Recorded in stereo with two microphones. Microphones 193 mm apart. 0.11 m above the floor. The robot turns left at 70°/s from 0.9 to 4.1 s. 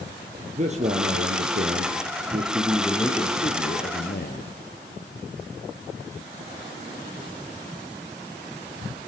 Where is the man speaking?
45° right, 3 m; by 4.5 s 90° left, 3 m.